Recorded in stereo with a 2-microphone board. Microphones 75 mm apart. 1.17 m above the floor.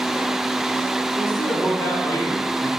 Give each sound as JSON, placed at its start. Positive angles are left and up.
{"t": 1.2, "sound": "a man speaking", "side_deg": 55, "distance_m": 2.5}